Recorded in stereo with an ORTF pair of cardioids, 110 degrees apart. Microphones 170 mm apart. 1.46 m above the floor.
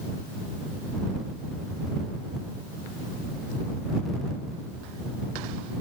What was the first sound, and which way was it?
Only background noise.